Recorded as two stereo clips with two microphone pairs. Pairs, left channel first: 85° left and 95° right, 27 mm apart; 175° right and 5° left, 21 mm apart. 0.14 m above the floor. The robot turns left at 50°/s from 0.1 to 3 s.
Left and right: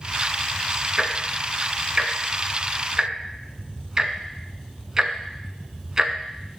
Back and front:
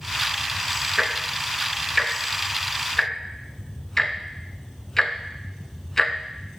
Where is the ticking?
35° right, 0.6 m; by 6.6 s 135° right, 0.6 m.